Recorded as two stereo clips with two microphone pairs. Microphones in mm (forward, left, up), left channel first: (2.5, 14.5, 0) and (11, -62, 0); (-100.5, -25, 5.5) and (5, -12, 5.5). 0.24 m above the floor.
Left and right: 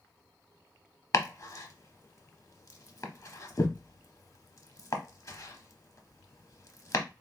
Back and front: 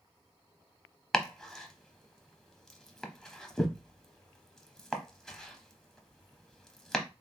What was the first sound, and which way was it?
Chopping, 110° left.